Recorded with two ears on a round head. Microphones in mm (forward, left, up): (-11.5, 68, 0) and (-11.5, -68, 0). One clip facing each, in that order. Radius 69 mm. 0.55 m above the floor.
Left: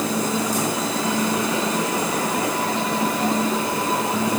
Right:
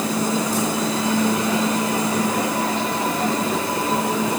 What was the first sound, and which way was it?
Only background noise.